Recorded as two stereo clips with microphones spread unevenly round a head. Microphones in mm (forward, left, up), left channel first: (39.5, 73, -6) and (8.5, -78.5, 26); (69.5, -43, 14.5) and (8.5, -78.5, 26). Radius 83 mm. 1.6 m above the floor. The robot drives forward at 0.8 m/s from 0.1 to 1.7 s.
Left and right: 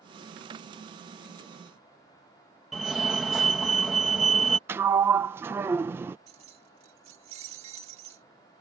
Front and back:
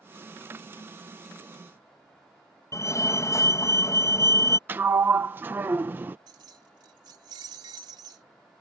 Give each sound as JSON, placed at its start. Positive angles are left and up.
{"t": 2.7, "sound": "a fire alarm", "azimuth_deg": -10}
{"t": 4.7, "sound": "a sliding door", "azimuth_deg": -145}
{"t": 6.3, "sound": "keys jangling", "azimuth_deg": -155}